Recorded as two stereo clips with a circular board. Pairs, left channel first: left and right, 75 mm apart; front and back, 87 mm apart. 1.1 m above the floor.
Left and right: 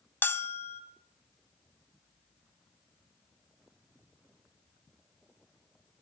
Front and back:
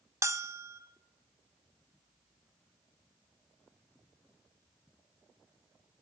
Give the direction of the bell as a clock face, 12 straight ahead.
7 o'clock.